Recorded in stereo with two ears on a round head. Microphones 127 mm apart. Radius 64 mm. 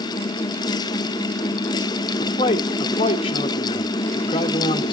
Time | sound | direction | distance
2.2 | a man speaking | 35° left (ahead or behind) | 1.2 m